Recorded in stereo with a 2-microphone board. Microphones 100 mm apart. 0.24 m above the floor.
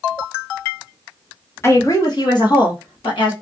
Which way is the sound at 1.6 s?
30° left (ahead or behind).